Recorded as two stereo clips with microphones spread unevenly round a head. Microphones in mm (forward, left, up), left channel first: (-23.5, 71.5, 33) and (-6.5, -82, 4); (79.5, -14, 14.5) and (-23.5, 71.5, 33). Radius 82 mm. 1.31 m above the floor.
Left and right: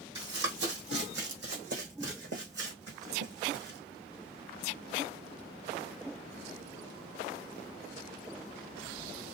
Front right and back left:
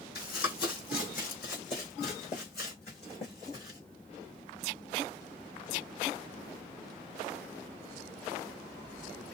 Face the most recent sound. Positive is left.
turn(degrees=-95)